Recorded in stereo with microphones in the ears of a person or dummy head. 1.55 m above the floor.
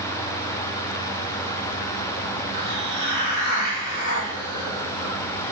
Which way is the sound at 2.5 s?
40° left (ahead or behind).